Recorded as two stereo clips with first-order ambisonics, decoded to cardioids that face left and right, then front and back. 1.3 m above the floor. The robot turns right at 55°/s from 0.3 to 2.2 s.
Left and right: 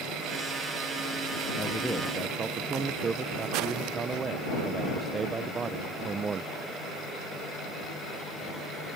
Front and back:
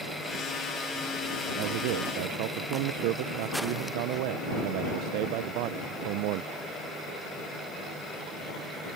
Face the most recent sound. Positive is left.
turn(degrees=-160)